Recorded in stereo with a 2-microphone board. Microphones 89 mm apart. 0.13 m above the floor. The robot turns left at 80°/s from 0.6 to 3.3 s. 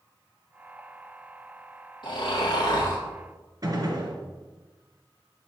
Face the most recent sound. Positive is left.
turn(degrees=-45)  # may be behind; listen again after turning